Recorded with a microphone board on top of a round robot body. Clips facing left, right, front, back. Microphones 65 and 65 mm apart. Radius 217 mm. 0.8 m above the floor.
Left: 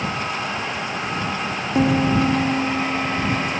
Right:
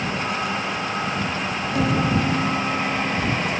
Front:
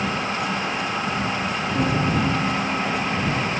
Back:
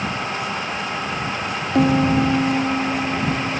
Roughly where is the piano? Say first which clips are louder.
Left 4 dB, back 7 dB; behind left.